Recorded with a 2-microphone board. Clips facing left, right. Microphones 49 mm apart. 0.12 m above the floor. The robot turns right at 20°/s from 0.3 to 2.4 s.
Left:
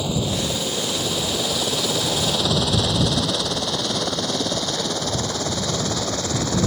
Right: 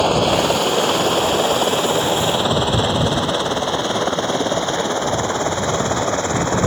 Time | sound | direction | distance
0.0 | a helicopter | 60° right (ahead or behind) | ?